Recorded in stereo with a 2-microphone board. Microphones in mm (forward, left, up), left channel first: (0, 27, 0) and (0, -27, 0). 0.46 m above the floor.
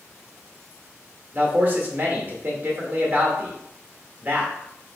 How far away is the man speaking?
About 1.3 m.